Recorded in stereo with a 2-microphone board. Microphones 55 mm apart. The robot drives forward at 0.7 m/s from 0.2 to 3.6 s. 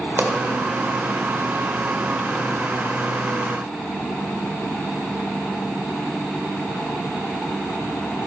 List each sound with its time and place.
0.2 s a pop: 40° right (ahead or behind), 1.2 m